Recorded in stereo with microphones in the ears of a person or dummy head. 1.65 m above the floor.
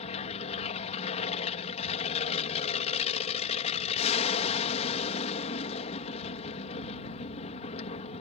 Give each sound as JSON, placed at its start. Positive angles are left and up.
{"t": 0.0, "sound": "an aircraft", "side_deg": 35}